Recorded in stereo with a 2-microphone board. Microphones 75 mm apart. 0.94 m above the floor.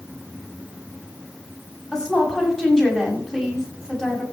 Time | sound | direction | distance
1.9 | a woman speaking | 5° left (ahead or behind) | 6.5 m